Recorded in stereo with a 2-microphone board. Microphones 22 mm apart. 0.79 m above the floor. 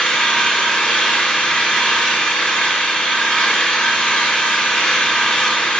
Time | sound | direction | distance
0.0 | an engine running | 55° left (ahead or behind) | 5 m